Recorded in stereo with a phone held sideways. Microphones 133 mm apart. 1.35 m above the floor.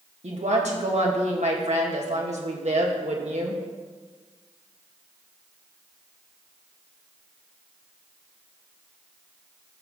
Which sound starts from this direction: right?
A woman speaking, at 0.2 s.